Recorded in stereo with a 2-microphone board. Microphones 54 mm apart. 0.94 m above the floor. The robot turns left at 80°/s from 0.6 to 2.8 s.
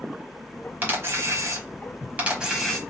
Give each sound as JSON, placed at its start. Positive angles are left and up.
{"t": 0.8, "sound": "a camera shutter", "azimuth_deg": -35, "distance_m": 1.5}